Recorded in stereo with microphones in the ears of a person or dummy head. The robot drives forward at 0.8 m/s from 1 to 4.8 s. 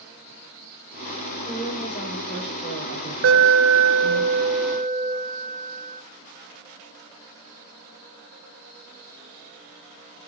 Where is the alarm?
60° right (ahead or behind), 1.1 m; by 6.0 s 45° right (ahead or behind), 1.4 m.